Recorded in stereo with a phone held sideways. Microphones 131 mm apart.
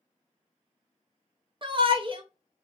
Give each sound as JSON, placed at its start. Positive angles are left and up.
{"t": 1.6, "sound": "a shout", "side_deg": -40, "distance_m": 0.6}